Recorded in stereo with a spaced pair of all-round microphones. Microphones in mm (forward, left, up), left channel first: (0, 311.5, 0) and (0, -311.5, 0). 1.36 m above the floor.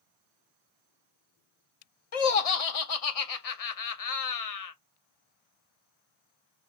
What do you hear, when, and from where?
2.1 s laughter: 65° left (ahead or behind), 0.7 m